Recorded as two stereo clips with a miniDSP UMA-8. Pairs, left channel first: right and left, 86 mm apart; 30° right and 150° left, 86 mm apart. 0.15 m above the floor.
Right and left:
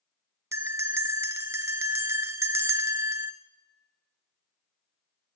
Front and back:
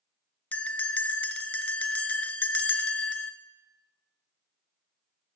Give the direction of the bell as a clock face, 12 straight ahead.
11 o'clock.